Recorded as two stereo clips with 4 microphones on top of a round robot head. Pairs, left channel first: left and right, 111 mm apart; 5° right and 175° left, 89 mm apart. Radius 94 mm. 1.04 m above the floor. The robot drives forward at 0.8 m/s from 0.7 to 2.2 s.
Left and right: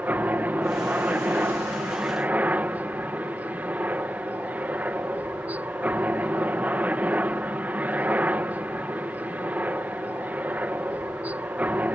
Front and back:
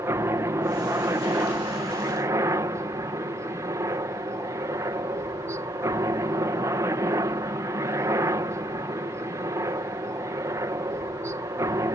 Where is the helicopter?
155° right.